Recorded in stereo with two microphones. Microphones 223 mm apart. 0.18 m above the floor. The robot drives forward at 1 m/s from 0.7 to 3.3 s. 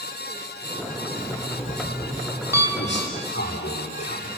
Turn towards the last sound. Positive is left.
turn(degrees=55)  # may be behind; listen again after turning